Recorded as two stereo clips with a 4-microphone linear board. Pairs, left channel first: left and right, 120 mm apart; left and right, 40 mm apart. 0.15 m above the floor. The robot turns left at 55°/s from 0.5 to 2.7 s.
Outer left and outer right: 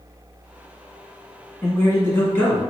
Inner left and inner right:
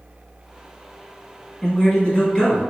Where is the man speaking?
25° left (ahead or behind), 1.2 m; by 2.7 s 15° left (ahead or behind), 1.2 m.